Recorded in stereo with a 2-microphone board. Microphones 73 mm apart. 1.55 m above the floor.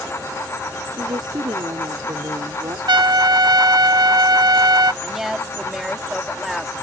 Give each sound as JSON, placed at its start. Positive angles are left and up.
{"t": 0.9, "sound": "a woman speaking", "side_deg": -85}
{"t": 2.9, "sound": "a trumpet", "side_deg": -85}
{"t": 5.0, "sound": "a woman speaking", "side_deg": -5}